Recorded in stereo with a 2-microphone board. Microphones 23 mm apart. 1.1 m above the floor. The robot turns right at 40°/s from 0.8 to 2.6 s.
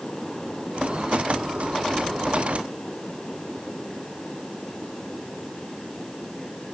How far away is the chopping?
No chopping in this recording.